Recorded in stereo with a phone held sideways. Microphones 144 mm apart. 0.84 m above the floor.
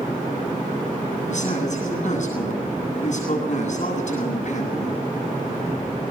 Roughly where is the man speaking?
Left.